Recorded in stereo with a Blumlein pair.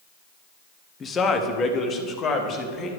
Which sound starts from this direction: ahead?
A man speaking, at 1.0 s.